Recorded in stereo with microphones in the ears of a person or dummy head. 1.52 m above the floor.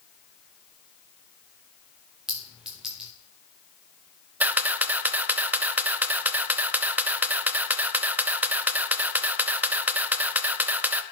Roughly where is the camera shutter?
Centre.